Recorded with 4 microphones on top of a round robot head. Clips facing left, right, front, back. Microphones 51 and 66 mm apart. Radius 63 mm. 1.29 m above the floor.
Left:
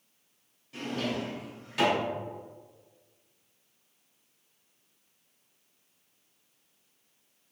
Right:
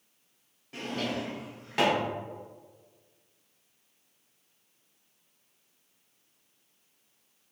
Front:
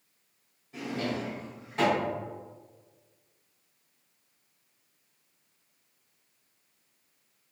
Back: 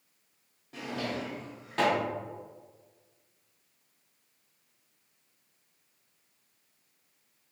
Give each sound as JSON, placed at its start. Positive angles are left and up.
{"t": 0.7, "sound": "a drawer", "azimuth_deg": -130, "distance_m": 0.7}